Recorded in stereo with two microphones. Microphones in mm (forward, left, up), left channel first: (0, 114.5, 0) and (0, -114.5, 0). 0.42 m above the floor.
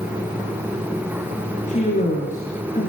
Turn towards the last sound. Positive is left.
turn(degrees=35)  # may be behind; listen again after turning